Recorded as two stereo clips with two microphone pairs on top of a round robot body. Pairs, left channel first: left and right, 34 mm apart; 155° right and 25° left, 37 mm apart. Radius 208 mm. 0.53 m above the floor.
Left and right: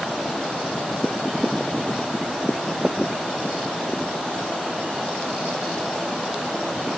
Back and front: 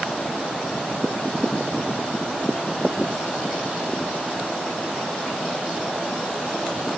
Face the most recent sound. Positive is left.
No sound to turn to.